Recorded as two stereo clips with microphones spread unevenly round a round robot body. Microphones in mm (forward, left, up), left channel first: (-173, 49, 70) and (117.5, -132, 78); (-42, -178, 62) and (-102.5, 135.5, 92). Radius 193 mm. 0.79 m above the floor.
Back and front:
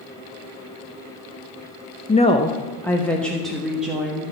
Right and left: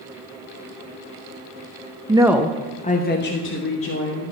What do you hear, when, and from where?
2.1 s a woman speaking: 160° left, 0.8 m; by 4.3 s 120° right, 2 m